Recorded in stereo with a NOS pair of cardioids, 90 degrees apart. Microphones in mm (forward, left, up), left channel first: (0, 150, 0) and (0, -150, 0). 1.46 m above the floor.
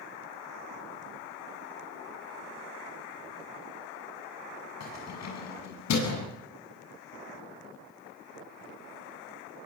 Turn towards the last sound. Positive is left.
turn(degrees=65)